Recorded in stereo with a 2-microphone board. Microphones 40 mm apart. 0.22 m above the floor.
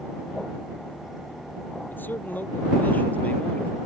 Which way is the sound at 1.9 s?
55° left (ahead or behind).